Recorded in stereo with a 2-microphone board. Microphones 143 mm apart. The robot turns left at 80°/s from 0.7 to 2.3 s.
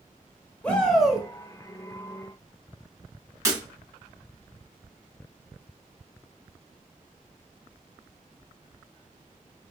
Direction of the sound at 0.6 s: 10° left (ahead or behind).